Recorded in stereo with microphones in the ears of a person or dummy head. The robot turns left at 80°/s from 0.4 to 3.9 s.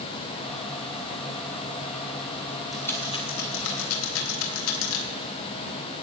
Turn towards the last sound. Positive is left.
turn(degrees=80)